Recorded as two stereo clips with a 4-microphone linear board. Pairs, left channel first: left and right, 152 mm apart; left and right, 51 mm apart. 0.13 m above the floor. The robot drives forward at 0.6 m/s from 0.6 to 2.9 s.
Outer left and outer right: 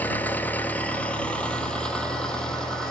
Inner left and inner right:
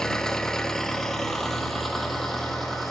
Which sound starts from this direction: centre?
An engine running, at 0.0 s.